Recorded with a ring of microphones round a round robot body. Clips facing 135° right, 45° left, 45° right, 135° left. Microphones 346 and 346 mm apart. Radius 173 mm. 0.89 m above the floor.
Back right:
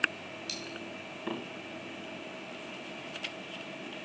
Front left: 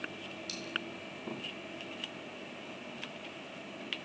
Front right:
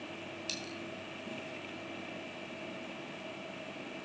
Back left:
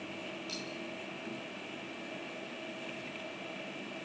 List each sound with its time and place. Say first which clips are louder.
0.5 s a dropped coin: back right 1 dB, back left 1 dB; 55° right, 2.5 m